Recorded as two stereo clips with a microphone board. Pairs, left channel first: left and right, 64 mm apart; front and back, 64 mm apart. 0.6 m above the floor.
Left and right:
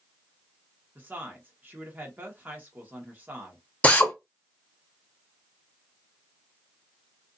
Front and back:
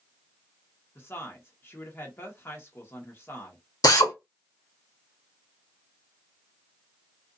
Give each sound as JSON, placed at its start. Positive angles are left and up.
{"t": 0.9, "sound": "a woman speaking", "azimuth_deg": -40, "distance_m": 1.1}
{"t": 3.8, "sound": "a drill", "azimuth_deg": 20, "distance_m": 0.8}